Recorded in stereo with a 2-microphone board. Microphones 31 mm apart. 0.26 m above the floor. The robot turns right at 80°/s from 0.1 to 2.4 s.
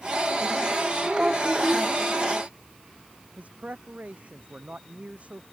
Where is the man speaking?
55° right (ahead or behind).